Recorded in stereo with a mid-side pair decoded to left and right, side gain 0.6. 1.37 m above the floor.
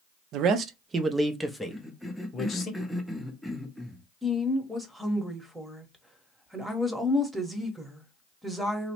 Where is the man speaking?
65° right, 0.6 m; by 2.7 s 30° left, 1.1 m.